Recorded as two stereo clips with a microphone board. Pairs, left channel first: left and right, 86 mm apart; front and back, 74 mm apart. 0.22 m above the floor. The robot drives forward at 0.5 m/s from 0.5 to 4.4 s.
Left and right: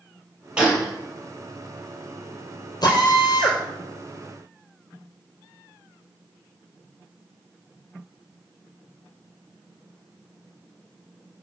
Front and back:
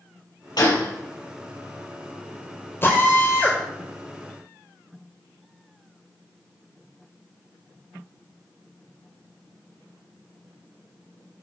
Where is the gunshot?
10° right, 4 m.